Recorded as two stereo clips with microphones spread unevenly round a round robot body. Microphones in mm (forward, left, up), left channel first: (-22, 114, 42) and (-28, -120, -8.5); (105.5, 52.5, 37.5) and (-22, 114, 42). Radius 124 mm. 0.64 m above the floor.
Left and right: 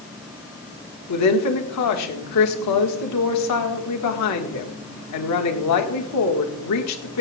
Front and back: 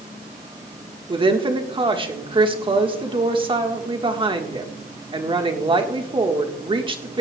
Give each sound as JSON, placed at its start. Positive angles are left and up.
{"t": 1.1, "sound": "a woman speaking", "azimuth_deg": 100, "distance_m": 1.7}